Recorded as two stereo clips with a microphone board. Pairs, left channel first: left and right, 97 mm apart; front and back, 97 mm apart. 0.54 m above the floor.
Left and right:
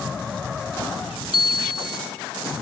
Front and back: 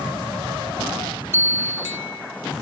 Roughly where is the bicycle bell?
Behind right.